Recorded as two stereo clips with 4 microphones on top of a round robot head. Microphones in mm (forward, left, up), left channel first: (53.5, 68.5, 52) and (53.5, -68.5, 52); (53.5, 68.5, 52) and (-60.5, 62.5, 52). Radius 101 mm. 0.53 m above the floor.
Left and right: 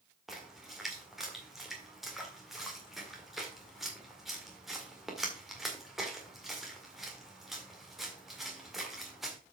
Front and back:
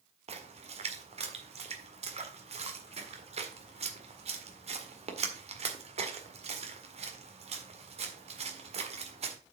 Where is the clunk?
No clunk in this recording.